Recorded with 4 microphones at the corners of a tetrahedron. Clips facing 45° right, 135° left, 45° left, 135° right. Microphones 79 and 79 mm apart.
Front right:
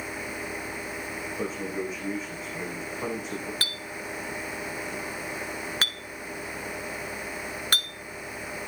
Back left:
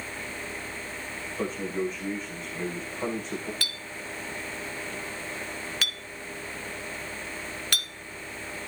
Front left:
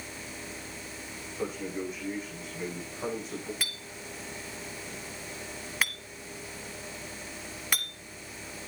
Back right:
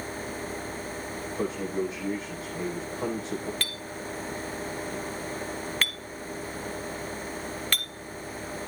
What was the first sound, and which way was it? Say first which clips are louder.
A man speaking: back left 3 dB, back right 4 dB; 130° right.